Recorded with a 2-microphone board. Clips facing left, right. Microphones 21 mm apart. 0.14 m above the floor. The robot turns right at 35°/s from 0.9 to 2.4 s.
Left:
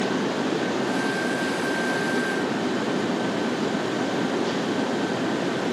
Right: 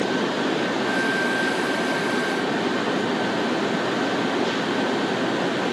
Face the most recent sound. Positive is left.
No sound to turn to.